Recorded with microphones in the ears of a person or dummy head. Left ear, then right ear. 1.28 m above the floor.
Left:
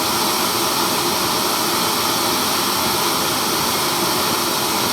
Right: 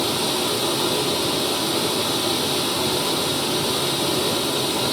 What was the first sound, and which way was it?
Running water, 60° left (ahead or behind).